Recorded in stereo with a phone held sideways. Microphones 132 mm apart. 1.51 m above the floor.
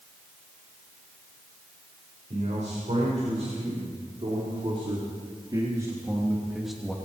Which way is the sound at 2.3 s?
60° right (ahead or behind).